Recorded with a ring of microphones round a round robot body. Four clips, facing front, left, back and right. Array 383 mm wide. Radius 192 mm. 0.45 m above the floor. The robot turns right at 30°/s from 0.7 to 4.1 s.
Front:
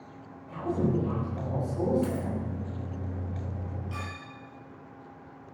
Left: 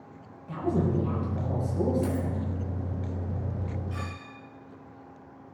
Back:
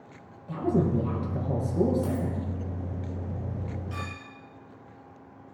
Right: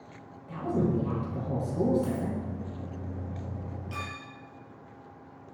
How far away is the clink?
About 8 m.